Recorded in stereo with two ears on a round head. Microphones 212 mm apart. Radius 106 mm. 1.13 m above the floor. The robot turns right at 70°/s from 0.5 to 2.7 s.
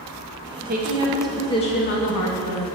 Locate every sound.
0.7 s a woman speaking: 40° right, 1.3 m; by 2.6 s 100° left, 1.3 m